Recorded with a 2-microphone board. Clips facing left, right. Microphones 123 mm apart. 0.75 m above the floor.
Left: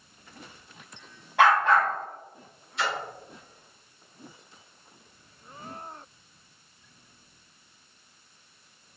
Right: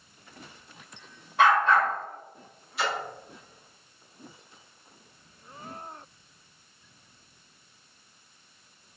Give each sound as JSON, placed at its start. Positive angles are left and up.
{"t": 1.4, "sound": "a dog barking", "side_deg": 80, "distance_m": 1.5}
{"t": 2.8, "sound": "a splash", "side_deg": -5, "distance_m": 1.7}